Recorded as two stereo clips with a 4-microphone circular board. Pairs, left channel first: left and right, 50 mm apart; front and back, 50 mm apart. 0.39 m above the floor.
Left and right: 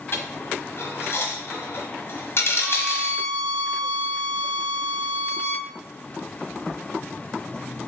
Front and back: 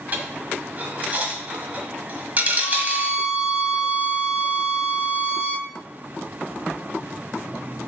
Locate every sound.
0.1 s a dropped coin: 125° left, 1.2 m
2.6 s a violin: straight ahead, 1.0 m